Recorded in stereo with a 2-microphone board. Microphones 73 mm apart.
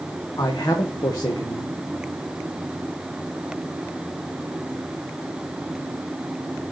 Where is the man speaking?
70° left (ahead or behind), 1.4 m.